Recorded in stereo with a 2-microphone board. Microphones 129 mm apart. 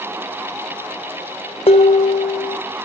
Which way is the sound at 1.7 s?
50° left (ahead or behind).